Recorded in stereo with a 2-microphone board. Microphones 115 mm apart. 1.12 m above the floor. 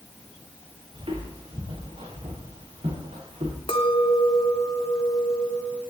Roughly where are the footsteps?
Right.